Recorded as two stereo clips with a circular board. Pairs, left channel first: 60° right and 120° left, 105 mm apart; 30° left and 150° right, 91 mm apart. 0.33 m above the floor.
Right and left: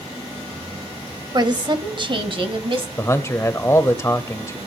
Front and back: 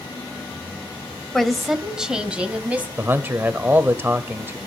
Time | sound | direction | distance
1.3 | a woman speaking | 115° left | 1.7 m
3.0 | a man speaking | 100° right | 1.2 m